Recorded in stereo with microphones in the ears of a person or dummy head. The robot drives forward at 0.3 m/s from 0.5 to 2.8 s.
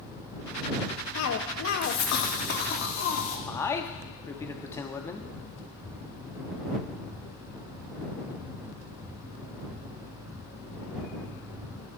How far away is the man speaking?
About 0.5 m.